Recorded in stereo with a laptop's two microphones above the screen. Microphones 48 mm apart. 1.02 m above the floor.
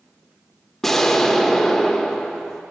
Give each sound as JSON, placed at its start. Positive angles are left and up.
{"t": 0.8, "sound": "an explosion", "side_deg": 5, "distance_m": 0.8}